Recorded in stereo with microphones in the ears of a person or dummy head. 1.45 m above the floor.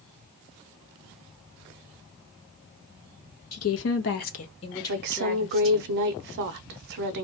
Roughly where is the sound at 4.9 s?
Right.